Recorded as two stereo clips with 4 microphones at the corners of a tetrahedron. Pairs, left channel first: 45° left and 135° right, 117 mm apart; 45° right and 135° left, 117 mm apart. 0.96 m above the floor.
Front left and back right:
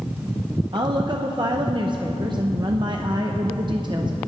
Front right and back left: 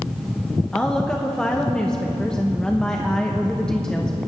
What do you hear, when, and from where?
0.7 s a woman speaking: 120° right, 0.7 m